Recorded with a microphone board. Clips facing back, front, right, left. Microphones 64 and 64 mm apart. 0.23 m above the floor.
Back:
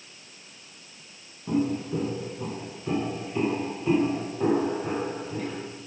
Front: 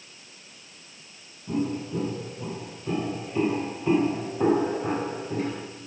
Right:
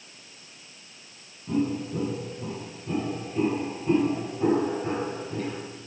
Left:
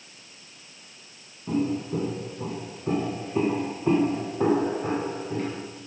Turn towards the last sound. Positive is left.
turn(degrees=40)